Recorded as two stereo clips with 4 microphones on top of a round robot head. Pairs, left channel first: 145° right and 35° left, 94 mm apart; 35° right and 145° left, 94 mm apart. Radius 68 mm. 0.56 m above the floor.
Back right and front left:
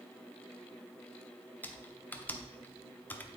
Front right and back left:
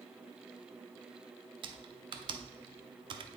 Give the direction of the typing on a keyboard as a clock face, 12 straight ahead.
7 o'clock.